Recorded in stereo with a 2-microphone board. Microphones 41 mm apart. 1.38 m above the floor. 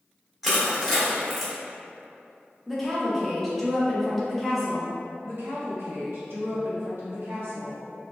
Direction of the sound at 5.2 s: 70° right (ahead or behind).